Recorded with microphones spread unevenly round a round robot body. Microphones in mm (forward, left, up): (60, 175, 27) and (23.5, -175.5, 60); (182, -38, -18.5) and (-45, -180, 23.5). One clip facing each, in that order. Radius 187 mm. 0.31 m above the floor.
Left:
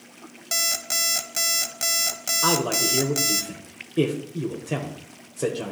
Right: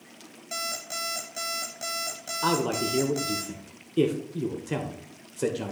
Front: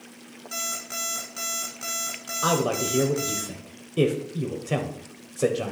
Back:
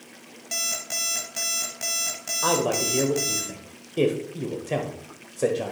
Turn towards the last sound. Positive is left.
turn(degrees=-15)